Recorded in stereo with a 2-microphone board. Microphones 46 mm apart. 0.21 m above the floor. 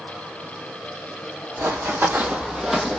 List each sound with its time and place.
1.6 s running footsteps: 65° right (ahead or behind), 0.7 m; by 3.0 s 10° left (ahead or behind), 0.5 m